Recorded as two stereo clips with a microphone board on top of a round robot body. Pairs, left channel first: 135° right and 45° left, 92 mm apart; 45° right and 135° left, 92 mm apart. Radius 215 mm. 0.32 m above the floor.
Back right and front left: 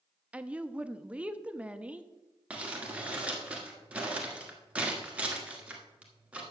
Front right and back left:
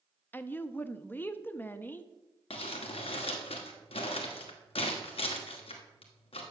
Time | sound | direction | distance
0.3 | a woman speaking | 15° right | 0.9 m
2.5 | crumpling | 35° right | 1.2 m